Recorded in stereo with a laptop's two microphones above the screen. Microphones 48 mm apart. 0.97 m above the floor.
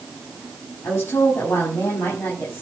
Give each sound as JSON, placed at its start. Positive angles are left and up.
{"t": 0.8, "sound": "a woman speaking", "side_deg": 65, "distance_m": 7.0}